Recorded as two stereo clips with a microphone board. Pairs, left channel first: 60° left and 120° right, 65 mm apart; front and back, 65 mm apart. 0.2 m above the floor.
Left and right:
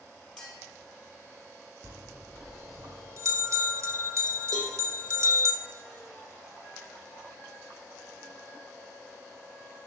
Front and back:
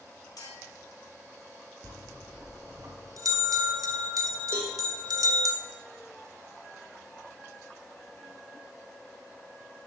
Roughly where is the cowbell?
Behind right.